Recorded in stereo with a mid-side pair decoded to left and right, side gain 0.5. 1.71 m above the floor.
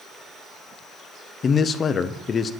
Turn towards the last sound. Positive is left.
turn(degrees=40)